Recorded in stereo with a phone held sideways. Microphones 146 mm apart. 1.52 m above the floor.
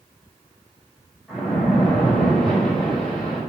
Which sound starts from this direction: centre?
A splash, at 1.3 s.